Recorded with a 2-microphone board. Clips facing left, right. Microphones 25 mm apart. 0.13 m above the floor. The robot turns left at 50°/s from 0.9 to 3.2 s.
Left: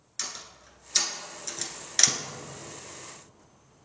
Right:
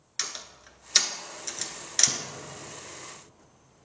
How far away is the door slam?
About 1.5 m.